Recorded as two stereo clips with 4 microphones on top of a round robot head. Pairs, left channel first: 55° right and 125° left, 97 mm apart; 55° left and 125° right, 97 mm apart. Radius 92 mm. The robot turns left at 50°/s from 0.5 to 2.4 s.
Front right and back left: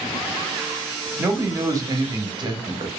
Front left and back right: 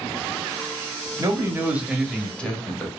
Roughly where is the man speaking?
Behind.